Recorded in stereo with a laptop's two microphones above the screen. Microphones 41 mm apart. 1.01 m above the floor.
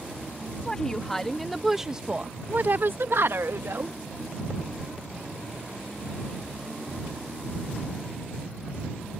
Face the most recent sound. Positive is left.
turn(degrees=-70)  # may be behind; listen again after turning